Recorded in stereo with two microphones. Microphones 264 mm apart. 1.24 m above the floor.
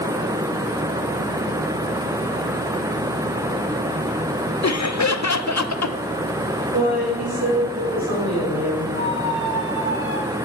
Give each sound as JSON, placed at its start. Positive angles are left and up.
{"t": 4.6, "sound": "laughter", "side_deg": 75, "distance_m": 0.6}
{"t": 6.7, "sound": "a woman speaking", "side_deg": -80, "distance_m": 5.5}
{"t": 8.9, "sound": "a squeak", "side_deg": -45, "distance_m": 4.0}